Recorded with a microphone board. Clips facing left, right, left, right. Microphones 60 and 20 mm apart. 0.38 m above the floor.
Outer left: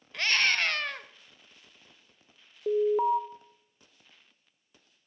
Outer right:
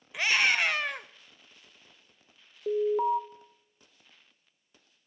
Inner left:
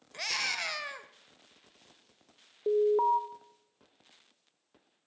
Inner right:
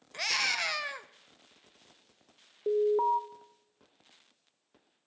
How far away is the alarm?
About 0.9 m.